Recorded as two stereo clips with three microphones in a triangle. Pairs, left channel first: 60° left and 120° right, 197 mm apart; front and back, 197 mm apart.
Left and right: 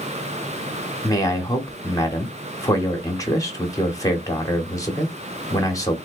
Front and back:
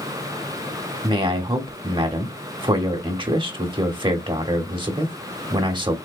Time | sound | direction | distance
1.0 | a man speaking | 125° left | 1.0 m